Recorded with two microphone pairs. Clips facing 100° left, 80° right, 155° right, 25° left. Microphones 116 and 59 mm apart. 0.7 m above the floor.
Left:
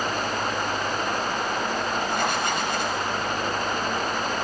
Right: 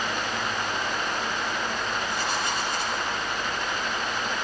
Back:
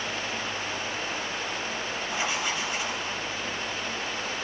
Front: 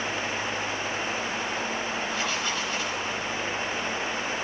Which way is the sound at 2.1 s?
130° left.